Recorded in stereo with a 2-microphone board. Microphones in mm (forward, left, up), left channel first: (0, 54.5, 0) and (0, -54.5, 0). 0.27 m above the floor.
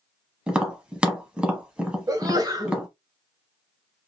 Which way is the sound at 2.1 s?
35° right (ahead or behind).